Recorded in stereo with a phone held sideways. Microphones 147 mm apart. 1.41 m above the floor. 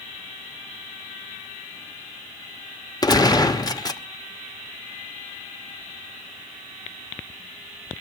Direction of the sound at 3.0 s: 25° left (ahead or behind).